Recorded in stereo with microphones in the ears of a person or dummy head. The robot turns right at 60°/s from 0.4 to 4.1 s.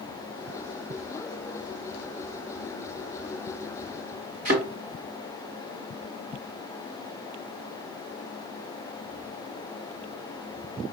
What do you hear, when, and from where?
4.5 s a thud: 50° right (ahead or behind), 2 m